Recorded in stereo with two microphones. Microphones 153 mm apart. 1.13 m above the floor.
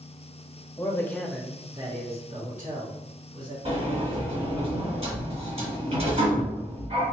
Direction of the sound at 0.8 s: 25° left (ahead or behind).